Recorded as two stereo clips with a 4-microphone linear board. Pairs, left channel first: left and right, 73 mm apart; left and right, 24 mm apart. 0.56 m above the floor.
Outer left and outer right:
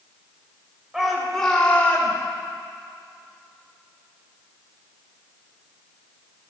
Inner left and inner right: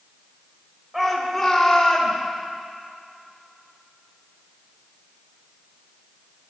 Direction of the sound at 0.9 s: 5° right (ahead or behind).